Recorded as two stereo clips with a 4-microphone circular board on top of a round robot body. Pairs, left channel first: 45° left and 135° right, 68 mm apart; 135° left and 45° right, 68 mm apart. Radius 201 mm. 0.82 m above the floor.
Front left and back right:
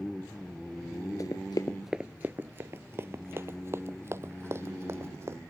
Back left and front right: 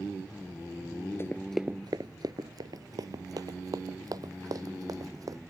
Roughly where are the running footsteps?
Left.